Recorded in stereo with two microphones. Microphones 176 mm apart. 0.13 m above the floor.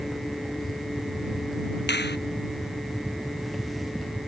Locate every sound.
1.9 s a finger snap: 75° left (ahead or behind)